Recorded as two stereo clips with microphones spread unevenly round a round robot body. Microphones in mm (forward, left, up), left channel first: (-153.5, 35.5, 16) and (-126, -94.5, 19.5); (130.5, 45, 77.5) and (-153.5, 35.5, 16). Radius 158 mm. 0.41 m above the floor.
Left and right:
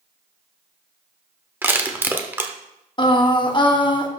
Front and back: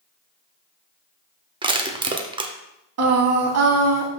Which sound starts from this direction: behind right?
Crushing, at 1.6 s.